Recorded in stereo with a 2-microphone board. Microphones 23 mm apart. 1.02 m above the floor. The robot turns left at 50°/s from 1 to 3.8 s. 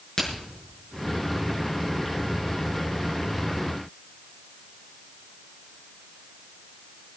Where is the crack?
30° left (ahead or behind), 6.5 m.